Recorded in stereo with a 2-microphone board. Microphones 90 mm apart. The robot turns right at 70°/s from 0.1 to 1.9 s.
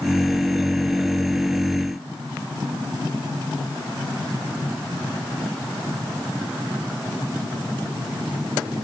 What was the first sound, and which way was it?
Only background noise.